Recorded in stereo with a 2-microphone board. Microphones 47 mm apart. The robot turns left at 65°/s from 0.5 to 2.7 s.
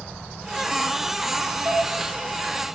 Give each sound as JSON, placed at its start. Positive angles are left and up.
{"t": 1.6, "sound": "dishes clattering", "side_deg": -65, "distance_m": 3.0}